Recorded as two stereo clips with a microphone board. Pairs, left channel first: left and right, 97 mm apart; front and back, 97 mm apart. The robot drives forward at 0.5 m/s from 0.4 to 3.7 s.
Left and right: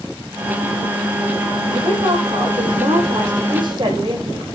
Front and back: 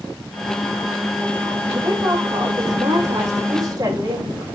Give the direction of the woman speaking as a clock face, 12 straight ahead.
4 o'clock.